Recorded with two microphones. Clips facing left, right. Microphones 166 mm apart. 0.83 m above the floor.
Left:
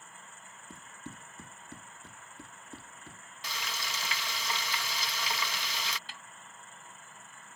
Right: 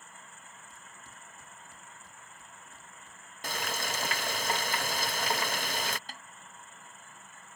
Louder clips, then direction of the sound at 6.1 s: Right 3 dB; 40° right (ahead or behind).